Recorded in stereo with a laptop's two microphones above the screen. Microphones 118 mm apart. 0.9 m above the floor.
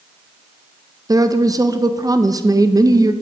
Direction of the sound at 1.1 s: 30° right (ahead or behind).